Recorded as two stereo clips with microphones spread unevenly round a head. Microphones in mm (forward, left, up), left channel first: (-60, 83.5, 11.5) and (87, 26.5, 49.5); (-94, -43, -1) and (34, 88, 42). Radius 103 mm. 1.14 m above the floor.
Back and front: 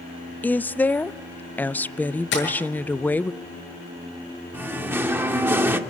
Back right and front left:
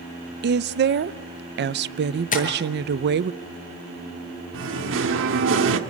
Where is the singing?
55° left, 1.8 m.